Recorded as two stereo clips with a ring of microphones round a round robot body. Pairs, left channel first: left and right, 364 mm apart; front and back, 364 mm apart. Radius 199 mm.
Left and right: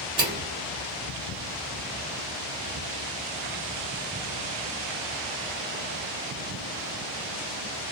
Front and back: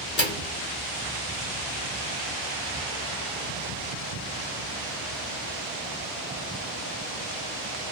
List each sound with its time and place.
0.2 s a microwave: 25° right, 1.2 m